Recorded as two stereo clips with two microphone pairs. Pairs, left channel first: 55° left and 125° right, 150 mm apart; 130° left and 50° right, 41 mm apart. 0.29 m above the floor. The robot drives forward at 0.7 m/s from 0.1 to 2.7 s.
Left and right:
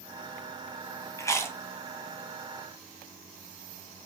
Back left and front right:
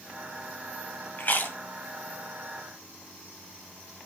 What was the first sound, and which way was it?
Chewing, 120° left.